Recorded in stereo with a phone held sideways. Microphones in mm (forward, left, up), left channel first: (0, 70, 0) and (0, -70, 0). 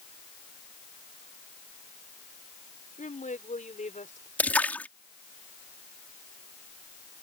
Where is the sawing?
I don't hear sawing.